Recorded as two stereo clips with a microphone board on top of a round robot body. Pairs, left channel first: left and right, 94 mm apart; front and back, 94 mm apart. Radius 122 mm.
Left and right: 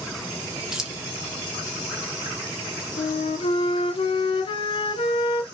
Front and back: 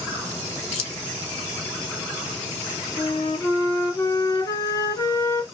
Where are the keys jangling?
5° right, 0.6 m.